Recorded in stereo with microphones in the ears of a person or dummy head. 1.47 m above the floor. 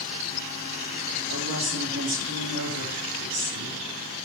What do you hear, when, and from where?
1.3 s a woman speaking: 70° right (ahead or behind), 4 m